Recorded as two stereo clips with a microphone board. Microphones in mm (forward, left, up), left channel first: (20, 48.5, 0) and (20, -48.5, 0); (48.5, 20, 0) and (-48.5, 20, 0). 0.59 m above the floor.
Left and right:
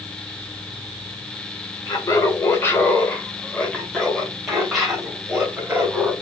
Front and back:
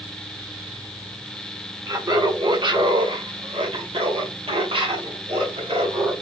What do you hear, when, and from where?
1.9 s laughter: 135° left, 1.8 m; by 6.1 s 165° right, 3.5 m